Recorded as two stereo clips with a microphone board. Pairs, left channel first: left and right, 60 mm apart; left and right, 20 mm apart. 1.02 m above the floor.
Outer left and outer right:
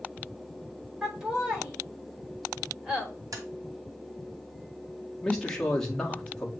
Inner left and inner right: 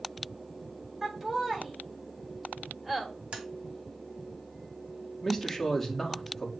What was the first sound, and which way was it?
Laughter, 20° right (ahead or behind).